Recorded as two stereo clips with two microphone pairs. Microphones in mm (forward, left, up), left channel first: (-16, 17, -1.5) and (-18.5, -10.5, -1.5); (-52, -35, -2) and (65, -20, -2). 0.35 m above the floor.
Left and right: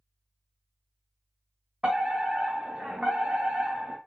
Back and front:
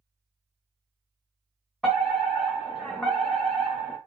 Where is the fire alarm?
85° right, 2.5 m.